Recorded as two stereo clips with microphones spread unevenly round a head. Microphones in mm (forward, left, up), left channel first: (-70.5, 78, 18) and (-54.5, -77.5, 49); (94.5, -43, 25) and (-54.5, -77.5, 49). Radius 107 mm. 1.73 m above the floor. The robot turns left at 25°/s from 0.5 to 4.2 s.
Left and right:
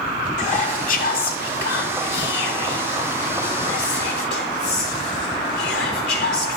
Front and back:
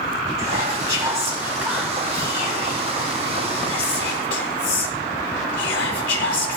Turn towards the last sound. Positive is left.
turn(degrees=50)